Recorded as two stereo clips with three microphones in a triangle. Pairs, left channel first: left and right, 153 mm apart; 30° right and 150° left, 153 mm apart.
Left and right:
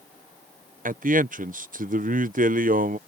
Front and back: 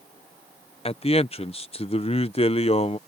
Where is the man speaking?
75° right.